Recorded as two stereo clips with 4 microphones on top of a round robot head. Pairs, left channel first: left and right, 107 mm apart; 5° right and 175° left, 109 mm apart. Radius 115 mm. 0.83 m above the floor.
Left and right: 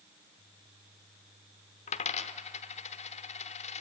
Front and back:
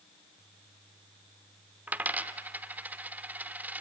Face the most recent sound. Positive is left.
turn(degrees=100)